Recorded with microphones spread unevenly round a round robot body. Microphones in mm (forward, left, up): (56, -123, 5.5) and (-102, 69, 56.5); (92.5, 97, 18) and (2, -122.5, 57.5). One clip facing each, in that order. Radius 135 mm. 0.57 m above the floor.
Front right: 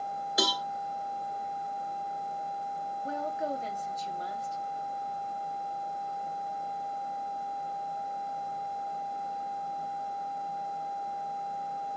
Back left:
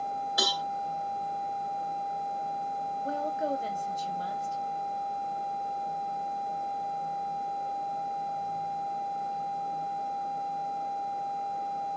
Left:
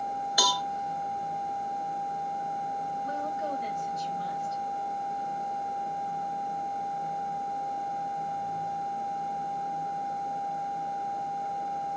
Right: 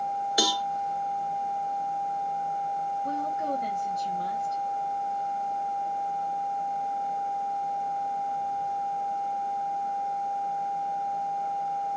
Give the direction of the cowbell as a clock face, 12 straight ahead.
2 o'clock.